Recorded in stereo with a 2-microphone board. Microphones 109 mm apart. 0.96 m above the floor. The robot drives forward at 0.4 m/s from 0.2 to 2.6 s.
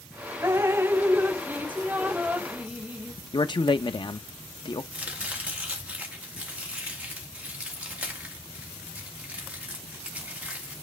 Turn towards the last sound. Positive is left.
turn(degrees=-10)  # may be behind; listen again after turning